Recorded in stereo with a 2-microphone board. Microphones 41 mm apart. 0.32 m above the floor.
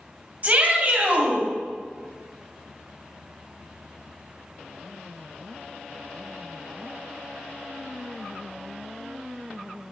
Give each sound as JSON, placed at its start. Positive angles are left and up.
{"t": 0.4, "sound": "a shout", "side_deg": -40, "distance_m": 2.0}